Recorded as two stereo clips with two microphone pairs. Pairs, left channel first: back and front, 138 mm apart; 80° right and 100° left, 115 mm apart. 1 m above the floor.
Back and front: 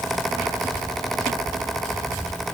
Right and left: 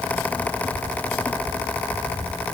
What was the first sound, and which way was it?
Only background noise.